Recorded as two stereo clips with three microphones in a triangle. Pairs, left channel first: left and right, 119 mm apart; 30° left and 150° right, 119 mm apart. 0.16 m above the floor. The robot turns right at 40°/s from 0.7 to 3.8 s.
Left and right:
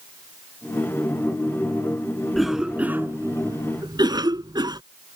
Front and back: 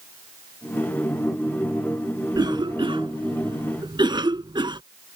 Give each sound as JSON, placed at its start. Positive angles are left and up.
{"t": 2.4, "sound": "a cough", "azimuth_deg": 180}